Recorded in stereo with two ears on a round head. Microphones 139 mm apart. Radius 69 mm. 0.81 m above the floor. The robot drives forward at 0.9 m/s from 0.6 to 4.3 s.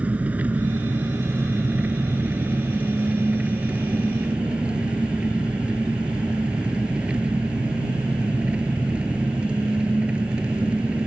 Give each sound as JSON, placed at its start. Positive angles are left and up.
{"t": 0.0, "sound": "an engine running", "side_deg": -10}